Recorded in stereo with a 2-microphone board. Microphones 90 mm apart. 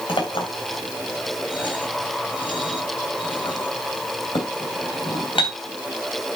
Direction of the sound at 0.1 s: 75° left (ahead or behind).